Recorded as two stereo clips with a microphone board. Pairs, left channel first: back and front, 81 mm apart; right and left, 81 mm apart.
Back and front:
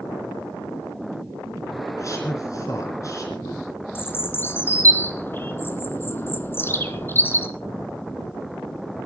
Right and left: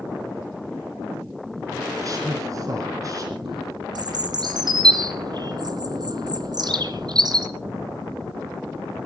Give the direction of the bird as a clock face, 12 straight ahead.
8 o'clock.